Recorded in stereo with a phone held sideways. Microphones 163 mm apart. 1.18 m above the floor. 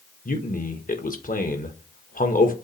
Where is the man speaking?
55° left (ahead or behind), 1.5 m.